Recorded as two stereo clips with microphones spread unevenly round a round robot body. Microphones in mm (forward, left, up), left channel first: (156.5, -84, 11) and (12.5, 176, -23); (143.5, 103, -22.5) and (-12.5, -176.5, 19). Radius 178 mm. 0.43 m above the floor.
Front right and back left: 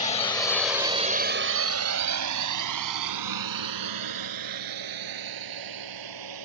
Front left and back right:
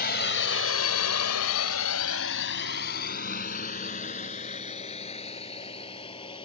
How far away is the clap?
I don't hear a clap.